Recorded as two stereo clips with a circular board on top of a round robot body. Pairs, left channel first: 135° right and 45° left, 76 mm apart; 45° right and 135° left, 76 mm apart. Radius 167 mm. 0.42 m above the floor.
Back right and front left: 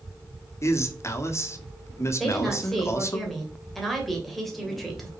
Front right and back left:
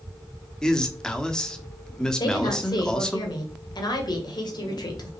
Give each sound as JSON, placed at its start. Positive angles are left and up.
{"t": 0.6, "sound": "a man speaking", "azimuth_deg": -120, "distance_m": 1.4}
{"t": 2.2, "sound": "a woman speaking", "azimuth_deg": -45, "distance_m": 2.5}